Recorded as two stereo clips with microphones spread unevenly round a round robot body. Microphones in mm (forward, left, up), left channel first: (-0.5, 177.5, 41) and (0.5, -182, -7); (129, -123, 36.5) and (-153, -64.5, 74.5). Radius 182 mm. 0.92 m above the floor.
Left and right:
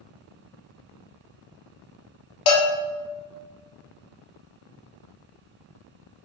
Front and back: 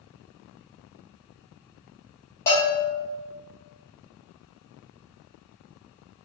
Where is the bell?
65° left, 0.8 m.